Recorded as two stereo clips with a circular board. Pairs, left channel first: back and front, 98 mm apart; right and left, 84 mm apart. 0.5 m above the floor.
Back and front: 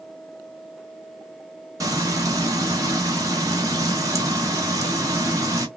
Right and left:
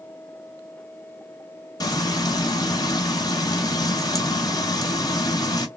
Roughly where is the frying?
Ahead right.